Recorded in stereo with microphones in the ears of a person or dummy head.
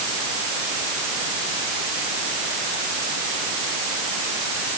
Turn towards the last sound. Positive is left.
No sound to turn to.